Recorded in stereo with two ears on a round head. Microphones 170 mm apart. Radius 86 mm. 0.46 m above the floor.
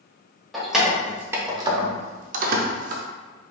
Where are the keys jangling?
Centre (ahead or behind), 1.1 m; by 3.0 s 40° right (ahead or behind), 0.7 m.